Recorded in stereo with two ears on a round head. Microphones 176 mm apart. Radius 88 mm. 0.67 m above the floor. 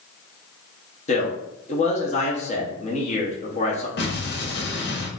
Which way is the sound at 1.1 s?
35° left (ahead or behind).